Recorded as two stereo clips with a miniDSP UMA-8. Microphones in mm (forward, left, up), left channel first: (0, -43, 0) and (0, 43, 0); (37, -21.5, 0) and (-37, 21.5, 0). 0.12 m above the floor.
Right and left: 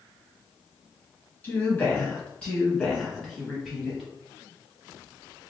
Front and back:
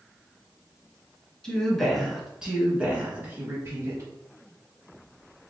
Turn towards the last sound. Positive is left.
turn(degrees=175)